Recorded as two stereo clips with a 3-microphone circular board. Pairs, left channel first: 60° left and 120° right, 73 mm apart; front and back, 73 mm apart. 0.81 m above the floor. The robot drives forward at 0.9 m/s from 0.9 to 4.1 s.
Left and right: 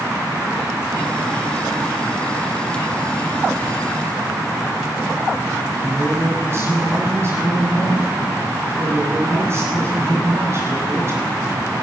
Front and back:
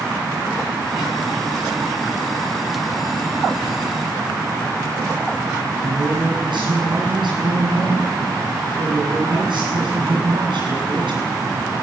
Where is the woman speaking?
175° right, 8 m.